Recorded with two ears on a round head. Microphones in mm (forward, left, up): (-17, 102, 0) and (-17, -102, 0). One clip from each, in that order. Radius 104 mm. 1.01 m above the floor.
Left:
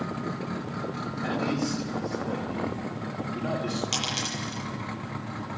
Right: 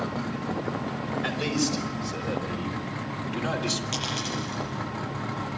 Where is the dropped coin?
20° left (ahead or behind), 8.5 m.